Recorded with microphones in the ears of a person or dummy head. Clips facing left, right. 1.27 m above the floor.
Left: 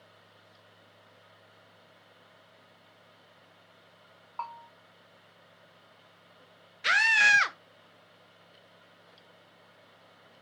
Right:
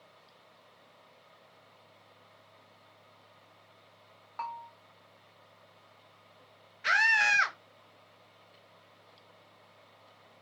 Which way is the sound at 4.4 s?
15° right (ahead or behind).